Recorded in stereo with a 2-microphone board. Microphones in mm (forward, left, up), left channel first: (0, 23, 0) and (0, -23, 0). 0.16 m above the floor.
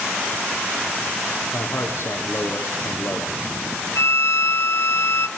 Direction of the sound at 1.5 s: 65° left (ahead or behind).